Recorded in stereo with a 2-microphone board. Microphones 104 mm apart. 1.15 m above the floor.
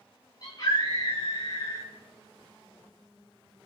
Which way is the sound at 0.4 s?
40° left (ahead or behind).